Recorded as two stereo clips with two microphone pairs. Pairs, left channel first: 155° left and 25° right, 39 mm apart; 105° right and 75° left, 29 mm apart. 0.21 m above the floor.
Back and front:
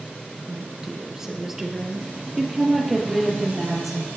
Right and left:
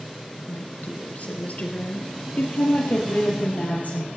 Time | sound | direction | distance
0.5 | a woman speaking | 100° right | 3 m